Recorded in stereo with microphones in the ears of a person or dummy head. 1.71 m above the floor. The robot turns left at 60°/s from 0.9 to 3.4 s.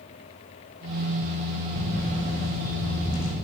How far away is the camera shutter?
About 3.5 m.